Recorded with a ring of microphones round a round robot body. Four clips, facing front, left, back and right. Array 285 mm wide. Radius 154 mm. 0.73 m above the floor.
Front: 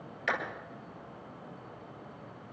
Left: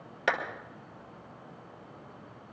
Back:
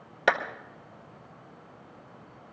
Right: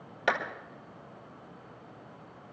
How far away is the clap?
About 2.5 m.